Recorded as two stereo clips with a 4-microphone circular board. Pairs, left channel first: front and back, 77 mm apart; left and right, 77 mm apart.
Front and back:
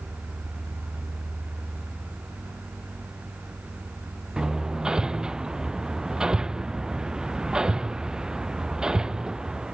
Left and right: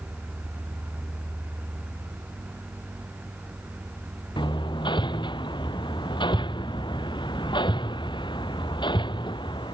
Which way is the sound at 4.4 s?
100° left.